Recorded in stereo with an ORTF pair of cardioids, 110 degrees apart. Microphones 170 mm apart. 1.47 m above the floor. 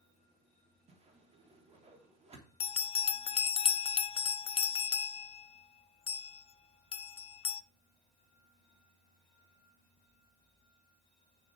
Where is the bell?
35° left, 0.7 m.